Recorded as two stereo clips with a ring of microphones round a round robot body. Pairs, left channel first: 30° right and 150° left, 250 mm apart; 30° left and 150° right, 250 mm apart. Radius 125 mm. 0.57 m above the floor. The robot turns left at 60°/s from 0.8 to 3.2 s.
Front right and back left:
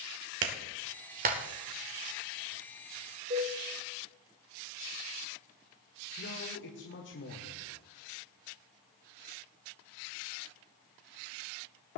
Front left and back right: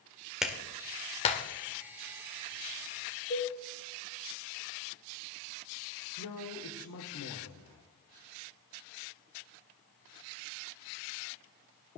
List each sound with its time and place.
0.4 s a clap: 120° left, 1.6 m; by 1.4 s 85° left, 1.6 m
3.3 s a cowbell: 85° left, 7 m
6.2 s a man speaking: 10° left, 1.7 m